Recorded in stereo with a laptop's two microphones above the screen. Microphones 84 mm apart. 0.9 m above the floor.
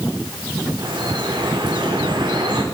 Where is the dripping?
65° right (ahead or behind), 3.5 m.